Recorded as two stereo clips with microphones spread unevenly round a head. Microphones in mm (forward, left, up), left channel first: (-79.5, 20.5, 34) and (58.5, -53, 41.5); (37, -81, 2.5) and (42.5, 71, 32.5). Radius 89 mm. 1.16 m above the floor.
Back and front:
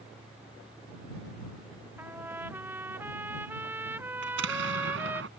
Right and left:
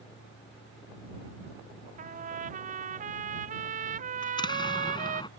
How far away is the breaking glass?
I don't hear breaking glass.